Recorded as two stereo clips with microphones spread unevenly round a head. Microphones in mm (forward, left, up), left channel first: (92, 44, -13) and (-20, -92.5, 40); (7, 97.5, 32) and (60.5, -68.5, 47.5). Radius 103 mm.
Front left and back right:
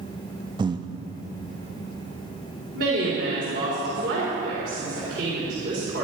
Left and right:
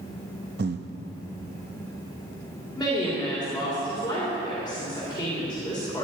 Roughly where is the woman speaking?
Behind.